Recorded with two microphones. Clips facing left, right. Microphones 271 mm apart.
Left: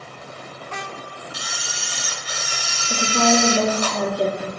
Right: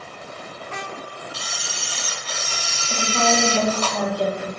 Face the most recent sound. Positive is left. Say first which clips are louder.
# left 3 dB
turn(degrees=25)  # may be behind; listen again after turning